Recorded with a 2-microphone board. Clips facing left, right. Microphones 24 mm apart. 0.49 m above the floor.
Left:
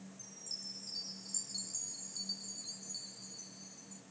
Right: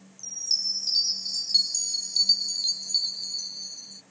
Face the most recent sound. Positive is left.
turn(degrees=-70)  # may be behind; listen again after turning